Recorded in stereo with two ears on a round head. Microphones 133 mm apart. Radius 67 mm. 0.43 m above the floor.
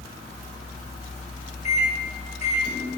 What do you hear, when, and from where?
1.6 s a microwave: 50° left (ahead or behind), 1.5 m